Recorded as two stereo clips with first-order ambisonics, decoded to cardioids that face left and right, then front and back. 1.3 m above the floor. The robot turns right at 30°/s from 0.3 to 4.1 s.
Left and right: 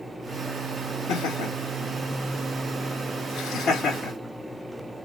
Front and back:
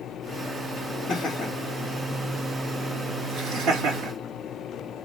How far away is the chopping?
No chopping in this recording.